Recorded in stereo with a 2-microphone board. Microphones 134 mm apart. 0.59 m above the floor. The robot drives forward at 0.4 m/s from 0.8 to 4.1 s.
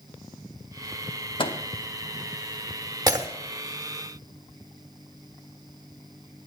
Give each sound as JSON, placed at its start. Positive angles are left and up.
{"t": 1.4, "sound": "a microwave", "side_deg": 40, "distance_m": 0.8}
{"t": 3.1, "sound": "breaking glass", "side_deg": -30, "distance_m": 0.8}